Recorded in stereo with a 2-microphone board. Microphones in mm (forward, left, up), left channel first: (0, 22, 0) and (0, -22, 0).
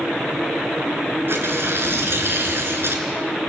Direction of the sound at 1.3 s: 60° right (ahead or behind).